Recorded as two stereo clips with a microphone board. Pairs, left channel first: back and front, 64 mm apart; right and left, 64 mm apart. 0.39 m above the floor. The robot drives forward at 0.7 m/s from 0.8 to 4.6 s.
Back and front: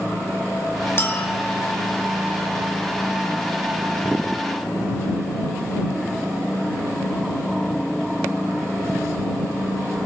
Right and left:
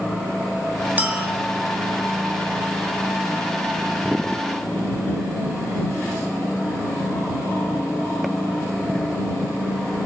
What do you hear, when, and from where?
1.0 s a clink: 140° left, 1.3 m; by 1.3 s 150° left, 1.4 m